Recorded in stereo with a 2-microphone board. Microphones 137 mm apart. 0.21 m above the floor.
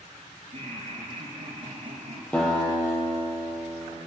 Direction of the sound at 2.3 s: 10° left (ahead or behind).